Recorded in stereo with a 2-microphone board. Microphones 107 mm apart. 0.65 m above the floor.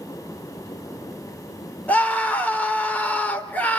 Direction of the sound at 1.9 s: 15° left (ahead or behind).